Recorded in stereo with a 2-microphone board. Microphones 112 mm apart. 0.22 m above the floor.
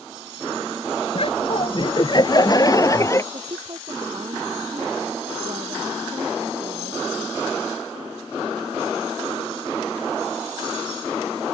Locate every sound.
1.1 s laughter: 55° left (ahead or behind); by 3.2 s 25° left (ahead or behind)
3.3 s a woman speaking: 45° right (ahead or behind)